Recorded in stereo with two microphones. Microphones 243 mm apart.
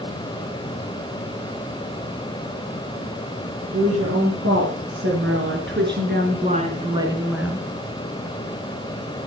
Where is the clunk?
I don't hear a clunk.